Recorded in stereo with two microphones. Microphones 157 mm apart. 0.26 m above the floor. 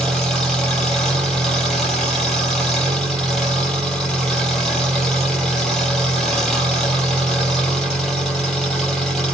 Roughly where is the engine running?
Centre.